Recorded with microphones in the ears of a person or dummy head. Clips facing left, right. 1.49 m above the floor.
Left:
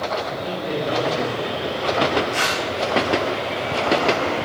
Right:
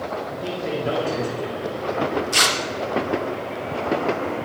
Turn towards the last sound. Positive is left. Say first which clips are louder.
# left 1 dB
turn(degrees=-50)  # may be behind; listen again after turning